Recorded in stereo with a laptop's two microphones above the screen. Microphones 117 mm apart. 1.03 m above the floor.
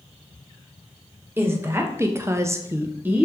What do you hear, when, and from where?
1.4 s a woman speaking: 20° right (ahead or behind), 1.1 m; by 3.2 s 10° right (ahead or behind), 0.5 m